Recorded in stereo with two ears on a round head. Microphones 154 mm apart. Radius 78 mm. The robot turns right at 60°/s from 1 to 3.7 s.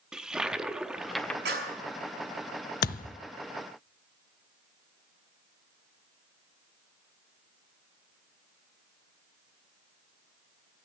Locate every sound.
0.1 s a toilet flushing: 5° right (ahead or behind), 0.6 m; by 1.4 s 5° left (ahead or behind), 0.6 m
1.4 s a clap: 65° right (ahead or behind), 5.5 m; by 1.8 s 50° right (ahead or behind), 5.5 m
2.8 s a thud: 60° left (ahead or behind), 0.6 m; by 3.2 s 40° left (ahead or behind), 0.6 m